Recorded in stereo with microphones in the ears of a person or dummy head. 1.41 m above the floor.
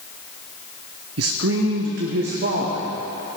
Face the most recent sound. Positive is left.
turn(degrees=-50)  # may be behind; listen again after turning